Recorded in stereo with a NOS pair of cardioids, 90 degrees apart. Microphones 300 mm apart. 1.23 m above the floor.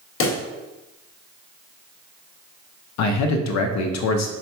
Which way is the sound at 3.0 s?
65° left.